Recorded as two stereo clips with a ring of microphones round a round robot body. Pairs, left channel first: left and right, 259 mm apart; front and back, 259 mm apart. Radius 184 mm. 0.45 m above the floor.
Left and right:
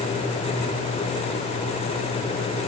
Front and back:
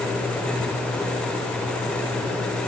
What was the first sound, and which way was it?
Only background noise.